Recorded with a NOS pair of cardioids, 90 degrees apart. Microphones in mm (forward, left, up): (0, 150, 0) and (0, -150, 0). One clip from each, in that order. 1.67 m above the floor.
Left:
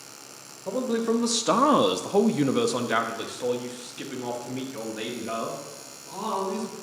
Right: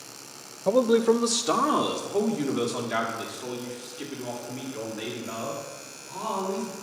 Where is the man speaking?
35° right, 0.6 m; by 6.7 s 80° left, 3.5 m.